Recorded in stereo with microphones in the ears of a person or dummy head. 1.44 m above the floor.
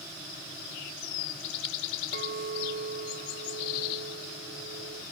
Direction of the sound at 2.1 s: 40° right (ahead or behind).